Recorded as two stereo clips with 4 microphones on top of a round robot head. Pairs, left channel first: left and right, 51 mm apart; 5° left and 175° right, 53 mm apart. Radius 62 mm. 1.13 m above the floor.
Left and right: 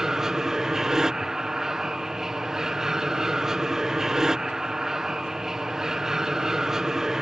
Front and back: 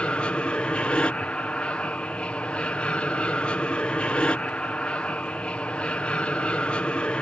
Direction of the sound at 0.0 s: 25° right.